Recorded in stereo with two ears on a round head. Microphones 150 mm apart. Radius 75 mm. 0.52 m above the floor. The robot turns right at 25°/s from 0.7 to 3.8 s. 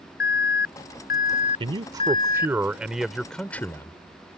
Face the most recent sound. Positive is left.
turn(degrees=15)